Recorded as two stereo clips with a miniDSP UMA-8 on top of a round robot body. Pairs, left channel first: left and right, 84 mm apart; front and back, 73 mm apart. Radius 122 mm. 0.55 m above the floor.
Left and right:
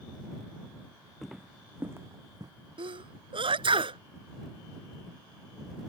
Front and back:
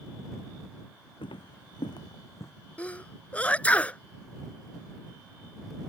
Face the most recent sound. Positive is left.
turn(degrees=-75)